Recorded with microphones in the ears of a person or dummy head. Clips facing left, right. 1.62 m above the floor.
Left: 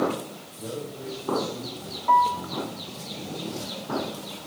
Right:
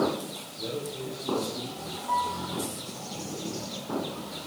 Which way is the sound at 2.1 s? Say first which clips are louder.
Left 9 dB; 65° left (ahead or behind).